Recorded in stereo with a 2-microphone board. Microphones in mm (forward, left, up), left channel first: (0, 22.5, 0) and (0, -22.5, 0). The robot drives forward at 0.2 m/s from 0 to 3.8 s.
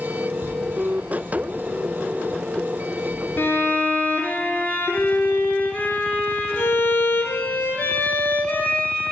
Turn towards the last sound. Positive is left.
turn(degrees=50)  # may be behind; listen again after turning